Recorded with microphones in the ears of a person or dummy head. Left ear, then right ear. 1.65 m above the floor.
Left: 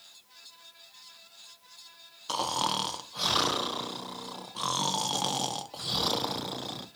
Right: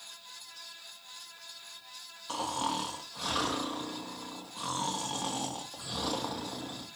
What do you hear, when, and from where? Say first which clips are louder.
2.3 s snoring: left 4 dB; 35° left (ahead or behind), 0.5 m